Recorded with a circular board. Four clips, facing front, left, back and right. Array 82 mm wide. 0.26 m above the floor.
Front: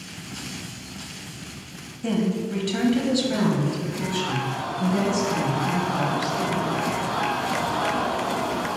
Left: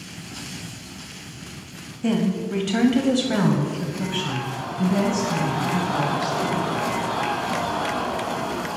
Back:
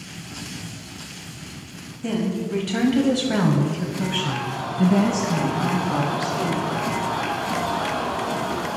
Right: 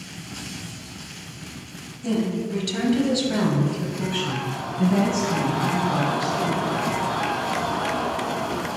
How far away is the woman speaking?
About 1.4 m.